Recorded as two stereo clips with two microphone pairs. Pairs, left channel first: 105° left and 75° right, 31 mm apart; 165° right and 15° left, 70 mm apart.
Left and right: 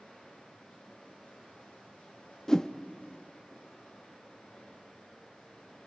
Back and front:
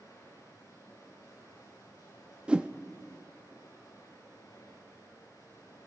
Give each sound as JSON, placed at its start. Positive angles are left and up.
{"t": 0.0, "sound": "running water", "azimuth_deg": 150, "distance_m": 7.0}
{"t": 2.5, "sound": "a whoosh", "azimuth_deg": 70, "distance_m": 0.6}